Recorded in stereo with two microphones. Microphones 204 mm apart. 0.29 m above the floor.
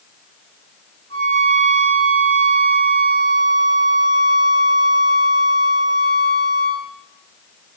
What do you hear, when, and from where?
1.1 s a violin: 30° left (ahead or behind), 4.5 m